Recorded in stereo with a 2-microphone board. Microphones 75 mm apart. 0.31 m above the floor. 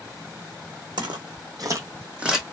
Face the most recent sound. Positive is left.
turn(degrees=-5)  # may be behind; listen again after turning